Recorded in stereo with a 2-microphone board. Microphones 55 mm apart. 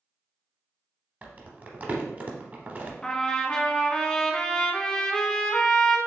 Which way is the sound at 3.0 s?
15° left (ahead or behind).